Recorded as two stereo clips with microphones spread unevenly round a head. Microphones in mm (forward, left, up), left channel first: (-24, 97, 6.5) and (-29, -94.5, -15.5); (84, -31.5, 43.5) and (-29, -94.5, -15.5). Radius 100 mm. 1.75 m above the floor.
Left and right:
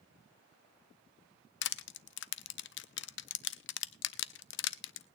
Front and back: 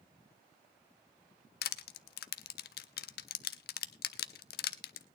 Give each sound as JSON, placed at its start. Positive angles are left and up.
{"t": 1.6, "sound": "crushing", "azimuth_deg": 50, "distance_m": 0.5}